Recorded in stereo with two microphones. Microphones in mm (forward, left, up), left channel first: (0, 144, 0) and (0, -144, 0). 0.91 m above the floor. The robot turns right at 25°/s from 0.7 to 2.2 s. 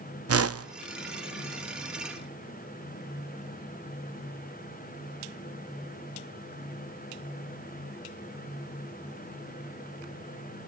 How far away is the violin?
No violin in this recording.